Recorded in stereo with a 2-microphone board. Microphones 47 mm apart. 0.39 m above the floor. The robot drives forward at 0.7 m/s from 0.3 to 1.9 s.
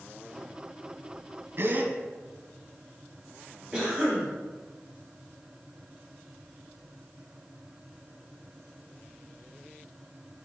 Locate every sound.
1.6 s a gasp: 55° right (ahead or behind), 0.6 m; by 1.9 s 40° right (ahead or behind), 0.8 m
3.7 s a cough: 20° right (ahead or behind), 3 m